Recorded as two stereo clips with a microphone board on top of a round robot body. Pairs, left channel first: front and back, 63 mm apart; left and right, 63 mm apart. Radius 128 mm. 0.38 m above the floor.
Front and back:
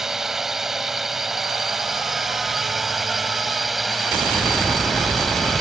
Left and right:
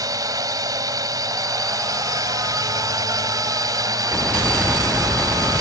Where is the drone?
95° right; by 5.6 s 90° right.